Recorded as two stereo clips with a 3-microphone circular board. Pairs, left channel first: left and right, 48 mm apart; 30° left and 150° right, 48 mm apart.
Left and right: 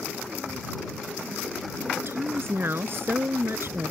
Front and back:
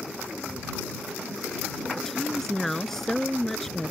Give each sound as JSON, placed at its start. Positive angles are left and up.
{"t": 2.0, "sound": "a woman speaking", "azimuth_deg": -50}